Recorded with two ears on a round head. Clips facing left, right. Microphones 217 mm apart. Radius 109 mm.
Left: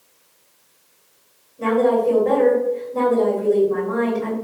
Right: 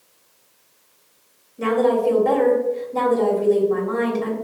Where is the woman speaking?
55° right (ahead or behind), 2 m.